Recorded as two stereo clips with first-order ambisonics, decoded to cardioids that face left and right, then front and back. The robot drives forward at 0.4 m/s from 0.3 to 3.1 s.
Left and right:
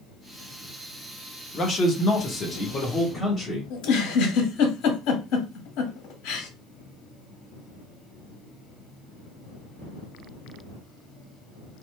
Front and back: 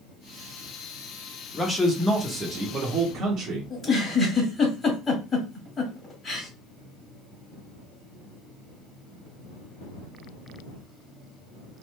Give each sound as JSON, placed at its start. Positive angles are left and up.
{"t": 1.5, "sound": "a man speaking", "azimuth_deg": 50, "distance_m": 0.6}
{"t": 3.7, "sound": "a giggle", "azimuth_deg": 75, "distance_m": 1.3}